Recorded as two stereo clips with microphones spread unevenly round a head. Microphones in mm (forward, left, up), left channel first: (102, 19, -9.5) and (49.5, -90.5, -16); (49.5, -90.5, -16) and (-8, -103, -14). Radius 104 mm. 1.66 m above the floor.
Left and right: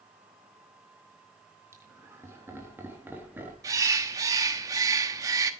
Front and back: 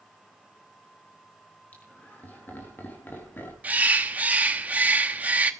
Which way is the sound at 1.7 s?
50° right.